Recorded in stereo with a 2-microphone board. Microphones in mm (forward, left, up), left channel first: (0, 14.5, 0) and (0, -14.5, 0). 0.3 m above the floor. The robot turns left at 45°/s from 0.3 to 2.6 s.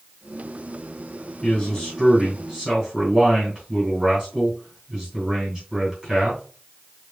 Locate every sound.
1.4 s a man speaking: 25° left, 3 m; by 6.4 s 25° right, 3 m